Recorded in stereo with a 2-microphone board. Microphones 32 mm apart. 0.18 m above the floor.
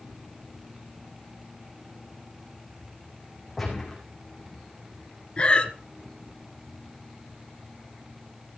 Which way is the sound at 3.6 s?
Centre (ahead or behind).